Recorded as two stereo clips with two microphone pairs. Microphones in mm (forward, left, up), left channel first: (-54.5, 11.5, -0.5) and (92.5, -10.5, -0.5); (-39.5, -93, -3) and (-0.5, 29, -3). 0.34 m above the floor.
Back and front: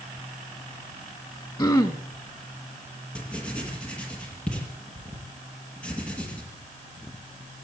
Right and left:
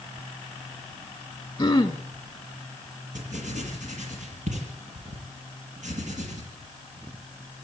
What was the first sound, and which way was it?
Throat clearing, 145° right.